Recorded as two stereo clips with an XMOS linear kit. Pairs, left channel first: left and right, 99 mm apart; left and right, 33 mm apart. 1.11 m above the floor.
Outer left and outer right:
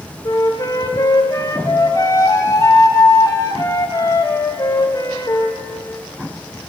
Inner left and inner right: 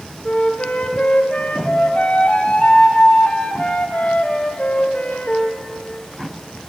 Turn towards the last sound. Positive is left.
turn(degrees=35)  # may be behind; listen again after turning